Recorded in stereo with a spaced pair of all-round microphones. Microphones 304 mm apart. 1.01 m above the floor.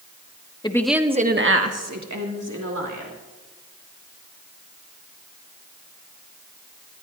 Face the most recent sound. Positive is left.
turn(degrees=-80)